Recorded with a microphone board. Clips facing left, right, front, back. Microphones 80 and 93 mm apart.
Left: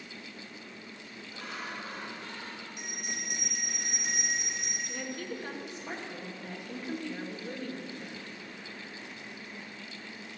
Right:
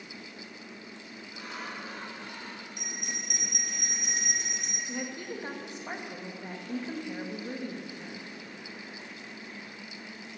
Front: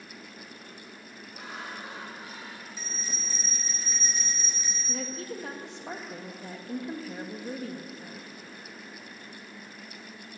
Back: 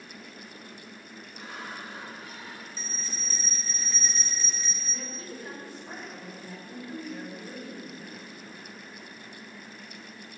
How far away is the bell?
About 3.5 m.